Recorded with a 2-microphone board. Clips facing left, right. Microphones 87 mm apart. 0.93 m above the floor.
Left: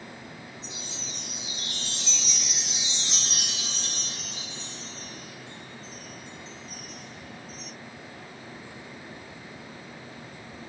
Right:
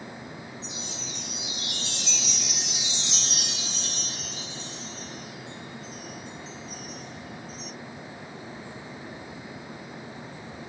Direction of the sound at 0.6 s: 40° left (ahead or behind).